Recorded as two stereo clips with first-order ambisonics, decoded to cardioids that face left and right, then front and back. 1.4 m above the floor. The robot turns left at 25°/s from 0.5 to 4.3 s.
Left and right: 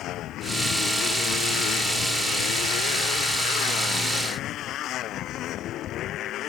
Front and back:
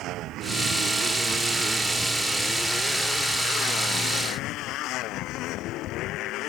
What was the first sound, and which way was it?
A motorcycle, 135° left.